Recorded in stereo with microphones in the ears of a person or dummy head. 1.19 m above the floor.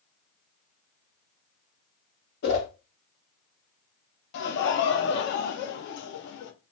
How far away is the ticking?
I don't hear ticking.